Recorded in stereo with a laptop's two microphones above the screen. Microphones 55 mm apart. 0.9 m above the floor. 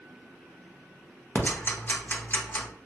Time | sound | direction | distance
1.4 | ticking | 35° left (ahead or behind) | 0.7 m